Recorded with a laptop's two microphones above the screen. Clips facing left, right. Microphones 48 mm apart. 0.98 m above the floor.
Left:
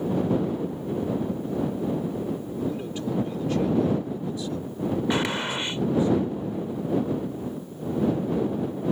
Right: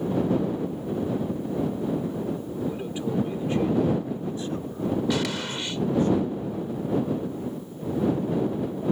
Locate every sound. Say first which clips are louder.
2.6 s a man speaking: even; 10° right (ahead or behind); by 6.1 s 65° right (ahead or behind)
5.1 s a gunshot: left 2 dB; 30° left (ahead or behind)